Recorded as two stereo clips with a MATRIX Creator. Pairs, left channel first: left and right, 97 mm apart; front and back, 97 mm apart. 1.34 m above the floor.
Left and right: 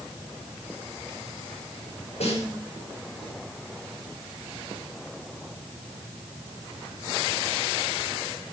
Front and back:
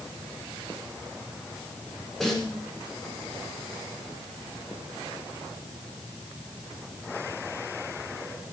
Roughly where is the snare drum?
Left.